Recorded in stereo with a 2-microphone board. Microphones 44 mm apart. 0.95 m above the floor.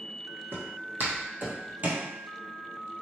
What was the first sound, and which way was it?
Footsteps, 60° right (ahead or behind).